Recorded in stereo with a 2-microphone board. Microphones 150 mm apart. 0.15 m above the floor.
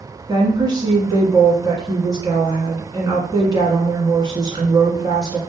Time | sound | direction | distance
0.3 | a woman speaking | 30° right (ahead or behind) | 1.4 m